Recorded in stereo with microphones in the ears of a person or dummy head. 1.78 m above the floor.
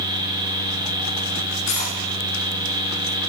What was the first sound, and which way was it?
Cutlery clinking, 65° left (ahead or behind).